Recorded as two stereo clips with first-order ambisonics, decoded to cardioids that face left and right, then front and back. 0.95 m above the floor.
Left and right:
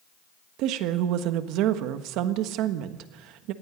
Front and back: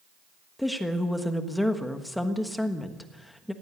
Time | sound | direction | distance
0.6 | a woman speaking | 85° right | 1.4 m